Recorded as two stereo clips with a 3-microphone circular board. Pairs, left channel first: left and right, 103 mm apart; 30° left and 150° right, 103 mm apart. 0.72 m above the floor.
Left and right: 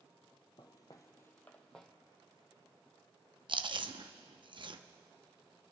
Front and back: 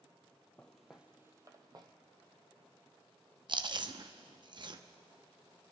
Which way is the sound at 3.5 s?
115° right.